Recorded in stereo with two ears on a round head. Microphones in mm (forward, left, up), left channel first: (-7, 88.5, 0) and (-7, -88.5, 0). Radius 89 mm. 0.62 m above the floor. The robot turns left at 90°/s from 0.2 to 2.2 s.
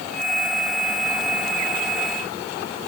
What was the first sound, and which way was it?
Only background noise.